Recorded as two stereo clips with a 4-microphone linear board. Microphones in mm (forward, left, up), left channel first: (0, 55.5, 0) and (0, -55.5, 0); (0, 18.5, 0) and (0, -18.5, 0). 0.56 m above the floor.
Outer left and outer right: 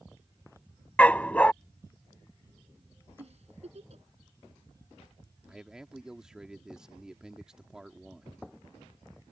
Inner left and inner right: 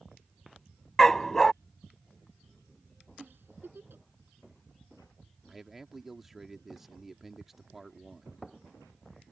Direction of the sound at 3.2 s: 65° right (ahead or behind).